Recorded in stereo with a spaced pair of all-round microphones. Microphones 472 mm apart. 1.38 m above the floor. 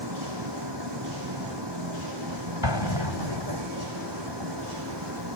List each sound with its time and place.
0.0 s a vehicle: 60° right (ahead or behind)
2.6 s an explosion: 65° left (ahead or behind)